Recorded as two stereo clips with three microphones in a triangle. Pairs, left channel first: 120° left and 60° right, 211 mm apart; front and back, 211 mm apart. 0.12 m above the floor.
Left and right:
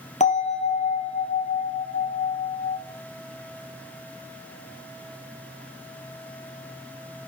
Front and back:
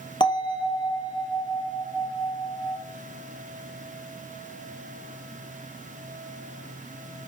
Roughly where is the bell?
Ahead left.